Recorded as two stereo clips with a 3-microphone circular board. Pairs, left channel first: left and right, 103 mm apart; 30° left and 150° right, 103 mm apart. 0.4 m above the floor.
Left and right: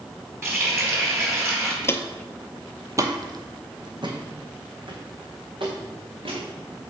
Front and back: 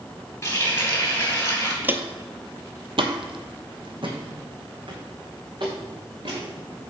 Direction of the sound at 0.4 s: 30° right.